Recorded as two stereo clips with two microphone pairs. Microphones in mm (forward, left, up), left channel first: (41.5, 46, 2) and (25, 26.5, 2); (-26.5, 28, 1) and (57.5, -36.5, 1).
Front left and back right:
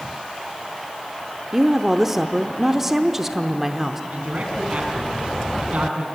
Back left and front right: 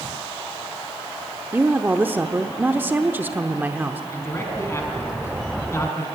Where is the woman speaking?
65° right, 0.9 m.